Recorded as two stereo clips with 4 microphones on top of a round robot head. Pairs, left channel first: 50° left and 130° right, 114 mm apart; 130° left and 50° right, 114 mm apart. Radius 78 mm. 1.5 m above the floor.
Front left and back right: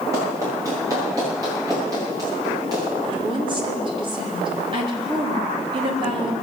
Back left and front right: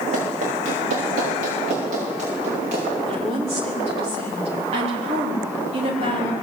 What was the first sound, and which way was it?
Running footsteps, 70° right.